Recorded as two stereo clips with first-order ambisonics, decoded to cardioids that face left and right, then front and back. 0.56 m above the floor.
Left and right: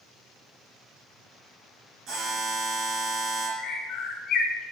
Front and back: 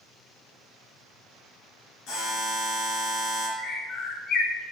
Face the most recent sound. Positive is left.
turn(degrees=45)